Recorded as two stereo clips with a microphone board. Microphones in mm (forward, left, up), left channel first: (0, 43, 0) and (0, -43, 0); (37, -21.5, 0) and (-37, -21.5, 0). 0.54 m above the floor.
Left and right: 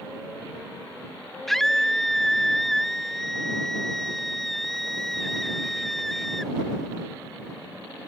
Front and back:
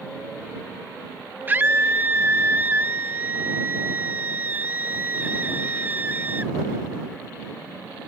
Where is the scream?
175° left.